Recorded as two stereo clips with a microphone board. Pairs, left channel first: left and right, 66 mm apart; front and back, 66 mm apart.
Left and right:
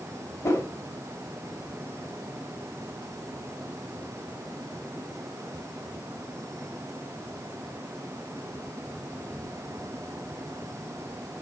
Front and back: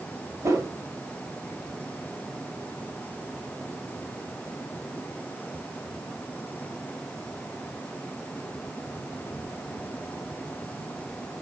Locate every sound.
0.4 s a whoosh: 140° left, 1.8 m